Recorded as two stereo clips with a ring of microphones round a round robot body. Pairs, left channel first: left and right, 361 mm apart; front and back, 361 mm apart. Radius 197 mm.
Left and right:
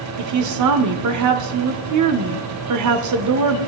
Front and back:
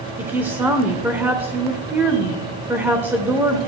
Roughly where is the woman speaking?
Right.